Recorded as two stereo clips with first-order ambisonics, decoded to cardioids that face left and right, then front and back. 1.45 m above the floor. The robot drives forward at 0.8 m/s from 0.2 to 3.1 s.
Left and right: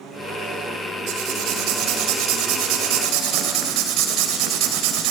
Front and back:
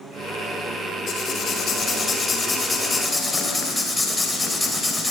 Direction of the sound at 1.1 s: 60° right.